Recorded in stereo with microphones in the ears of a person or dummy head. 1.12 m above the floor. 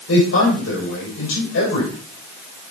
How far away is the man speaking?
About 5 m.